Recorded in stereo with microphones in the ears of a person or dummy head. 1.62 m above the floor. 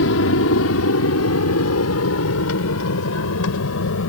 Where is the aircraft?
70° left (ahead or behind).